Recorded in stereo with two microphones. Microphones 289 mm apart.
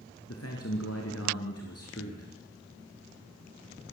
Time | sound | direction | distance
0.3 | a man speaking | 60° left (ahead or behind) | 2.5 m